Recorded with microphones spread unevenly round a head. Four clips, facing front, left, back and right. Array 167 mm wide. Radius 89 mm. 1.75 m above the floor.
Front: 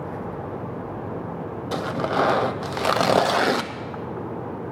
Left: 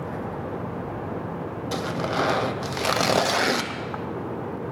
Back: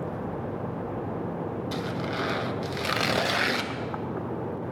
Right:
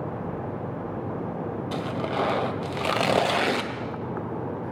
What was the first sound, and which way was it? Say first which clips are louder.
Tearing paper: left 3 dB, front 7 dB; 5° left.